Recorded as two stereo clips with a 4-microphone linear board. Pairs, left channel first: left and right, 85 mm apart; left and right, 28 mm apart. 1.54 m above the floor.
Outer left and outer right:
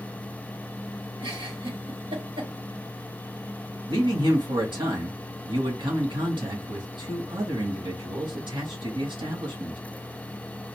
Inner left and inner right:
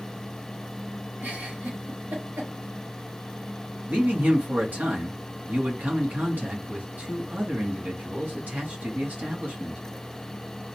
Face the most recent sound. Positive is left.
turn(degrees=-70)  # may be behind; listen again after turning